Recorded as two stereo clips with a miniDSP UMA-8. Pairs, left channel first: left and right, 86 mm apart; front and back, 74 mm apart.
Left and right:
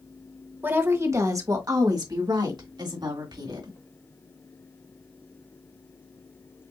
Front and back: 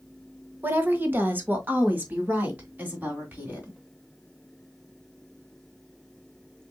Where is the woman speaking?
140° right, 1.1 m; by 3.8 s 115° right, 3 m.